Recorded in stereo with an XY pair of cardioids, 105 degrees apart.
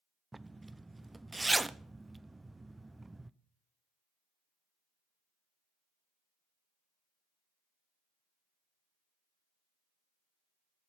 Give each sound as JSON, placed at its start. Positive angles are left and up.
{"t": 0.3, "sound": "a zipper", "azimuth_deg": -15, "distance_m": 0.5}